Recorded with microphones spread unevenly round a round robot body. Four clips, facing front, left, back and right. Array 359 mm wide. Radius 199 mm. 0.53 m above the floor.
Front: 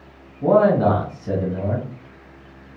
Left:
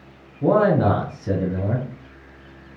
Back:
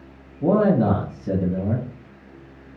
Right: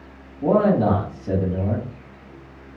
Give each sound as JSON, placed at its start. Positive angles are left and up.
{"t": 0.4, "sound": "a man speaking", "azimuth_deg": 125, "distance_m": 2.0}